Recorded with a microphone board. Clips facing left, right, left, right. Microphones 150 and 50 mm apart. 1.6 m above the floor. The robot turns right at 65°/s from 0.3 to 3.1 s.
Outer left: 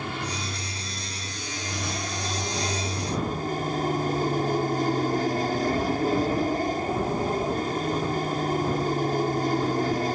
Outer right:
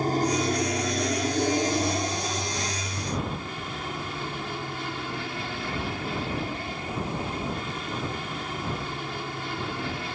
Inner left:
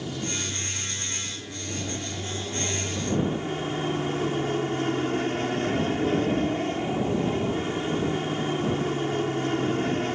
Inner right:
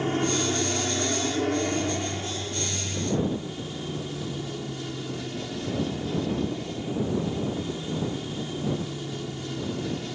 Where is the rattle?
No rattle in this recording.